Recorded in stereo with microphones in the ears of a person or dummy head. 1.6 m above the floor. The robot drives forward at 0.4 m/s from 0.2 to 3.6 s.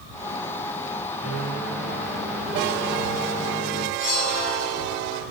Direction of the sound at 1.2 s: 5° right (ahead or behind).